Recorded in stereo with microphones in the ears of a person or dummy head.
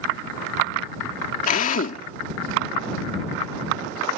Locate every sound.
1.5 s a drill: 50° left (ahead or behind)